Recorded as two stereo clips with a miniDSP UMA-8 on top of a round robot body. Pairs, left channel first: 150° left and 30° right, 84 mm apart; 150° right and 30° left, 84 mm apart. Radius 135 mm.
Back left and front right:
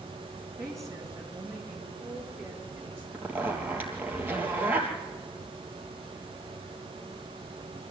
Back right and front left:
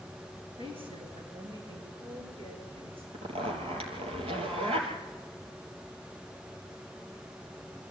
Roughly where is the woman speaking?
Ahead left.